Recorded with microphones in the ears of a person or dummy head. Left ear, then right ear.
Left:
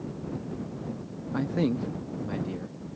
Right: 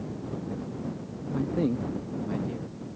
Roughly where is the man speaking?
Left.